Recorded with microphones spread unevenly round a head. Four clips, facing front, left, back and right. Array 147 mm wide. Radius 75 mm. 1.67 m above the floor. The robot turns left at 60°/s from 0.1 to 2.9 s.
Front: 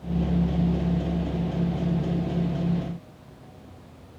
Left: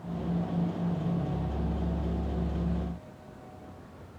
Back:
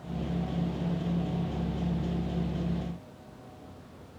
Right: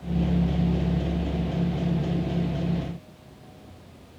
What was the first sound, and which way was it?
Only background noise.